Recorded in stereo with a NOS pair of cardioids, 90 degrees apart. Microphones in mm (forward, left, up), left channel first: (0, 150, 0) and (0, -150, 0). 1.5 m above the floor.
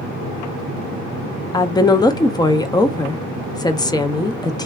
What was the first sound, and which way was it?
A woman speaking, 15° left.